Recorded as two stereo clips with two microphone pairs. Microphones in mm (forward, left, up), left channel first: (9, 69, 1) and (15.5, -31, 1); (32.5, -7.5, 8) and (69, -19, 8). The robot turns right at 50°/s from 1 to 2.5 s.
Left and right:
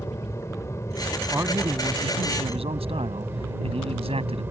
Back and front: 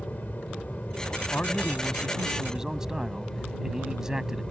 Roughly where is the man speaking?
Behind right.